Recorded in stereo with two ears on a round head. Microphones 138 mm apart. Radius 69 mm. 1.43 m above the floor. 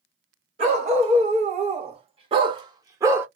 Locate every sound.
0.6 s a dog barking: 45° right (ahead or behind), 1.4 m; by 3.3 s 15° right (ahead or behind), 0.9 m